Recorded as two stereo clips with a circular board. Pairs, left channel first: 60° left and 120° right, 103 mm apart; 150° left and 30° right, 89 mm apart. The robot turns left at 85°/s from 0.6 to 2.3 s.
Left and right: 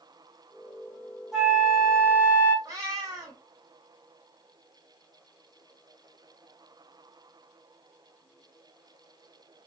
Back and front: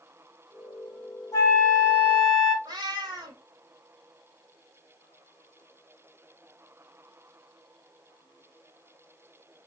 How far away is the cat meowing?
About 1.2 m.